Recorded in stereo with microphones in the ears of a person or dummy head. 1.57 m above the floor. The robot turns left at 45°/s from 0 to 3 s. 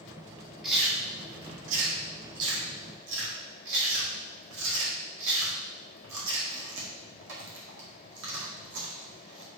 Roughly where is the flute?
I don't hear a flute.